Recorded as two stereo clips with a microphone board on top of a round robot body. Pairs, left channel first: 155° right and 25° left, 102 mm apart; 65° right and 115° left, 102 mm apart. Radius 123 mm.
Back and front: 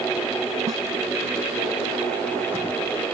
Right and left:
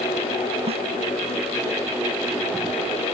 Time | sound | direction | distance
0.7 | a snare drum | 80° left | ?